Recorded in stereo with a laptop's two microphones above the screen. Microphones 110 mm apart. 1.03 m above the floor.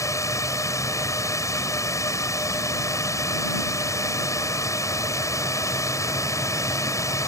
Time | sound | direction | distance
0.0 | a drone | 30° left (ahead or behind) | ?